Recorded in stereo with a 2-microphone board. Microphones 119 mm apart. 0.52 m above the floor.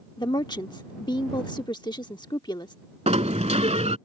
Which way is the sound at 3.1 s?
70° right (ahead or behind).